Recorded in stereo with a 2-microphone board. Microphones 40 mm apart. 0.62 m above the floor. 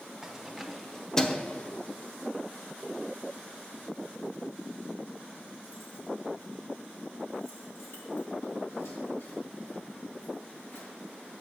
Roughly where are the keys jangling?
Centre.